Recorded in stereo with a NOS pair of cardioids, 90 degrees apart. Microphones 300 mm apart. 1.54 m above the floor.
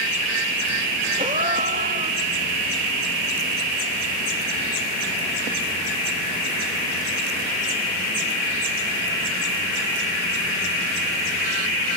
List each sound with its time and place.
1.2 s a gasp: 25° right, 2 m